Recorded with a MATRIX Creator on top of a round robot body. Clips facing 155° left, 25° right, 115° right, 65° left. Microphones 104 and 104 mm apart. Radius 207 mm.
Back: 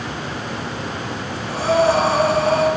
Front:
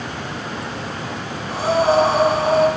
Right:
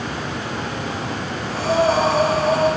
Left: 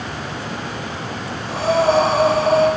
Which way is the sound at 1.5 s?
45° left.